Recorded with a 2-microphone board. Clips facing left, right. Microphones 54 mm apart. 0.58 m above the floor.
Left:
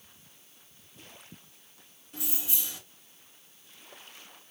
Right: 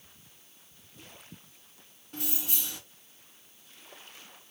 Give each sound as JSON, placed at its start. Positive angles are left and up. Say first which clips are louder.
{"t": 2.1, "sound": "keys jangling", "louder": "right 2 dB", "side_deg": -55, "distance_m": 3.5}